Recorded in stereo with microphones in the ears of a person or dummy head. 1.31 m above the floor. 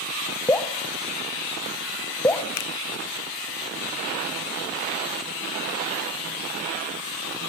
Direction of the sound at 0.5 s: 10° left (ahead or behind).